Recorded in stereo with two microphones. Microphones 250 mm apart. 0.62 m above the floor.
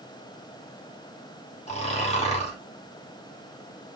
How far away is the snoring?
About 1.1 m.